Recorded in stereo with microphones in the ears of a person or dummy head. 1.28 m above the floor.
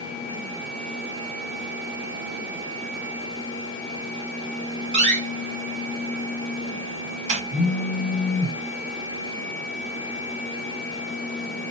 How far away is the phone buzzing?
About 2.0 m.